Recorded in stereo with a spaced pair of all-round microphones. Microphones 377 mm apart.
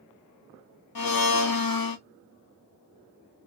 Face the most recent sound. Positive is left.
turn(degrees=65)  # may be behind; listen again after turning